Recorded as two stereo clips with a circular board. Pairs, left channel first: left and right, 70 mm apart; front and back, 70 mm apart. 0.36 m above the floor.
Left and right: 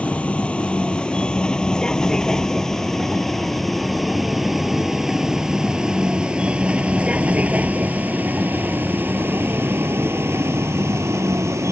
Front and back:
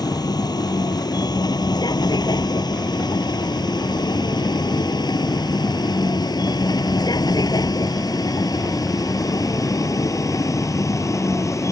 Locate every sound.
0.0 s a vehicle: 20° left; by 11.7 s 45° right